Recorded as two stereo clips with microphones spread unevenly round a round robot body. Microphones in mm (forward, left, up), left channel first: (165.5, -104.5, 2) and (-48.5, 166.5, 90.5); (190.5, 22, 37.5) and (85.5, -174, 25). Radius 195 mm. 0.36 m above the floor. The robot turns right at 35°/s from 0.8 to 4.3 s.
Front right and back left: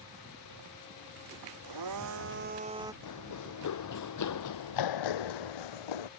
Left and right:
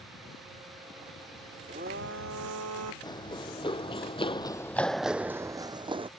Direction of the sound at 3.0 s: 10° right.